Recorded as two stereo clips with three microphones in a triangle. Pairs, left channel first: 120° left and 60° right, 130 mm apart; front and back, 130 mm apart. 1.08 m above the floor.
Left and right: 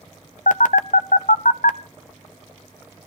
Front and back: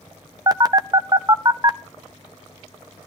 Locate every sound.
0.5 s a phone buzzing: 125° left, 0.6 m